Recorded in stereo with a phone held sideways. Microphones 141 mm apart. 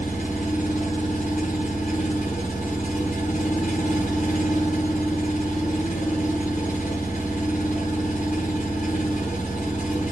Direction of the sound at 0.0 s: 70° left (ahead or behind).